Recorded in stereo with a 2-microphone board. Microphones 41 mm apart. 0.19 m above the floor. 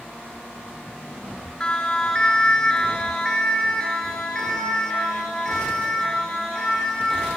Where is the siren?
20° left (ahead or behind), 3.5 m; by 7.4 s 15° left (ahead or behind), 8.5 m.